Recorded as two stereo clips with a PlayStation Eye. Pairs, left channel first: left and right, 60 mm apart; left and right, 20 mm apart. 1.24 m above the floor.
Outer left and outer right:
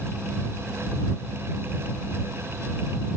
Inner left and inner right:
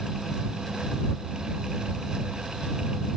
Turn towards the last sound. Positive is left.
No sound to turn to.